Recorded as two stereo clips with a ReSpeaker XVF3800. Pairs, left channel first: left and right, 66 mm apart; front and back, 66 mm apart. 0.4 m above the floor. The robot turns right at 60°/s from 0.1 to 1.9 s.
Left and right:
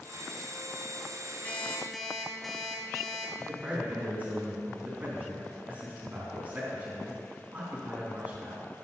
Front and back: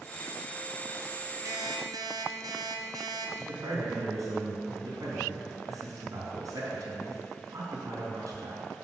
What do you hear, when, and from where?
1.4 s an alarm clock: 150° left, 1.8 m; by 3.3 s straight behind, 1.8 m
3.4 s a man speaking: 155° right, 3.5 m